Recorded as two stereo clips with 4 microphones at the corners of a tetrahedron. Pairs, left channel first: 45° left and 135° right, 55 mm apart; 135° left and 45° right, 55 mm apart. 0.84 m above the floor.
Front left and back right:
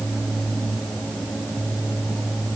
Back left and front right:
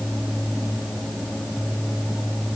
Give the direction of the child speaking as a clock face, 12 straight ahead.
No child speaking in this recording.